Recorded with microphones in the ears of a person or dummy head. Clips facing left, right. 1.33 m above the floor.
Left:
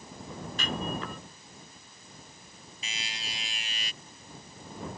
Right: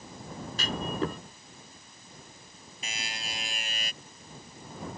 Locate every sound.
0.6 s a clunk: 30° right (ahead or behind)
2.8 s a buzzer: 45° right (ahead or behind)